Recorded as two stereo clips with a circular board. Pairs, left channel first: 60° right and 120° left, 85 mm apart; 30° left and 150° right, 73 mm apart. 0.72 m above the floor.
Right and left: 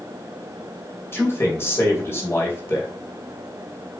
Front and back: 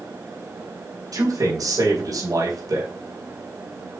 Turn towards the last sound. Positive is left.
turn(degrees=-120)